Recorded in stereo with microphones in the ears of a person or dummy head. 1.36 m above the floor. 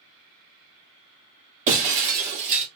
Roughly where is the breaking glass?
Right.